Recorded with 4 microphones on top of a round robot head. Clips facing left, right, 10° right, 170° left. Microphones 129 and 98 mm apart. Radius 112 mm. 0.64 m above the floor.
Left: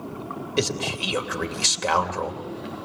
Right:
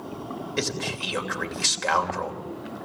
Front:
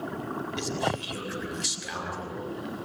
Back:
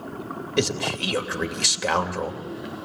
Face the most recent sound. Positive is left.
turn(degrees=160)